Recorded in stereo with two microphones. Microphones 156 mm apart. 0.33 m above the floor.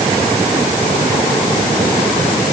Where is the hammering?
No hammering in this recording.